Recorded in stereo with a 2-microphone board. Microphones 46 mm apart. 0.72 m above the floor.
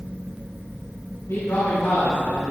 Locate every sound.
1.3 s a man speaking: 85° left, 6 m; by 2.5 s 80° left, 7 m